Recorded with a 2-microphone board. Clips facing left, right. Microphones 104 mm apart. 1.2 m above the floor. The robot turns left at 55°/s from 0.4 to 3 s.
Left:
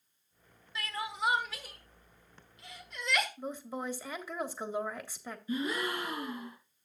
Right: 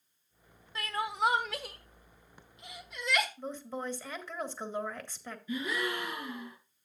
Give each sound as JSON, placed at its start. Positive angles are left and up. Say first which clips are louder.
{"t": 0.8, "sound": "crying", "louder": "right 4 dB", "side_deg": -45, "distance_m": 1.3}
{"t": 3.4, "sound": "a woman speaking", "louder": "even", "side_deg": 10, "distance_m": 1.4}
{"t": 5.5, "sound": "a gasp", "louder": "left 1 dB", "side_deg": 35, "distance_m": 3.0}